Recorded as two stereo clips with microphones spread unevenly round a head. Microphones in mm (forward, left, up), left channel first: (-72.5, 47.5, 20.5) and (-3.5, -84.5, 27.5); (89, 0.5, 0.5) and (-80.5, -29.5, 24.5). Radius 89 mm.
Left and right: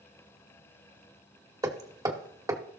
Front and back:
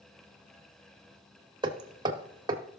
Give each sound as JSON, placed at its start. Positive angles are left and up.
{"t": 1.6, "sound": "hammering", "azimuth_deg": -120, "distance_m": 1.3}